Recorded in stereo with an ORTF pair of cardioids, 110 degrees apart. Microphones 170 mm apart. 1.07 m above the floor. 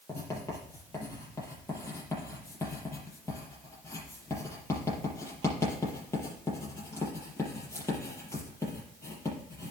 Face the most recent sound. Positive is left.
turn(degrees=15)